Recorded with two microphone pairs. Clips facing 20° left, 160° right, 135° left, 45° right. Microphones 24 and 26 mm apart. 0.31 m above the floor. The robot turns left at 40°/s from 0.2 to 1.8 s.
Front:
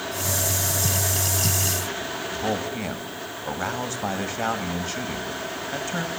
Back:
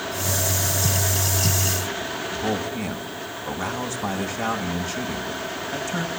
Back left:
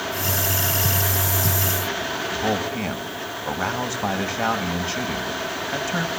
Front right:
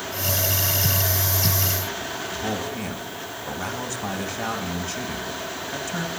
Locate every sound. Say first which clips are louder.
2.3 s a man speaking: even, back left 5 dB; 85° left, 1.8 m